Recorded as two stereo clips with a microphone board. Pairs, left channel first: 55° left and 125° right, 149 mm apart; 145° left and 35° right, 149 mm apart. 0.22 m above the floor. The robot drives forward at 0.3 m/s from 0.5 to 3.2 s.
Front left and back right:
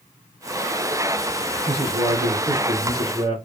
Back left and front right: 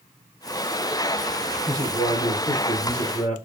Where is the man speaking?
170° left, 3 m; by 3.4 s 175° left, 3.5 m.